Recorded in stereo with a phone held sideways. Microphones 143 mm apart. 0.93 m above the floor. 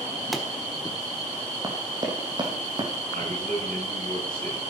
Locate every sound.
0.3 s a pop: centre (ahead or behind), 1.3 m
1.6 s running footsteps: 25° right (ahead or behind), 2.5 m; by 2.9 s 35° right (ahead or behind), 3 m
3.1 s a man speaking: 70° right (ahead or behind), 7.5 m